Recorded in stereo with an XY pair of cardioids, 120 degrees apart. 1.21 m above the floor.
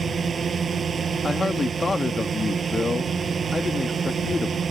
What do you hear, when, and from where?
0.0 s a drone: 35° right
1.2 s a man speaking: 25° left